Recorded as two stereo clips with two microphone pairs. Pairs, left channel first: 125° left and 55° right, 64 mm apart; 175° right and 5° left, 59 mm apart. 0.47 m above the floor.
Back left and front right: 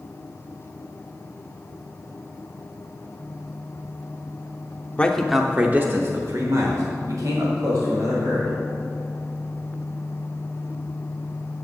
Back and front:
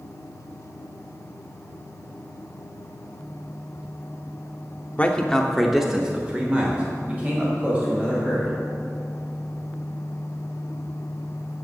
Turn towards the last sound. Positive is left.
turn(degrees=-50)